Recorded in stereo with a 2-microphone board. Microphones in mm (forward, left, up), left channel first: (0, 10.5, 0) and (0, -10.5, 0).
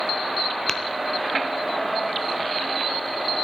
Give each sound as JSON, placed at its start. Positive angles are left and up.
{"t": 0.7, "sound": "tapping", "side_deg": 25, "distance_m": 0.9}